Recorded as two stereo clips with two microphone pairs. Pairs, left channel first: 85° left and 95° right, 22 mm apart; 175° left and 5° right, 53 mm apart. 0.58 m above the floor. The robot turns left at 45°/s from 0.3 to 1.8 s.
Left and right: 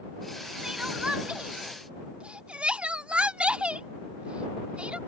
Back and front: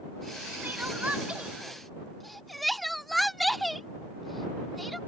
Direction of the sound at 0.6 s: 45° right.